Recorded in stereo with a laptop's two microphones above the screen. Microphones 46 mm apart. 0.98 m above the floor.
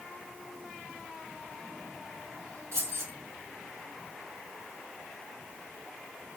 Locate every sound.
2.7 s keys jangling: 85° right, 1.3 m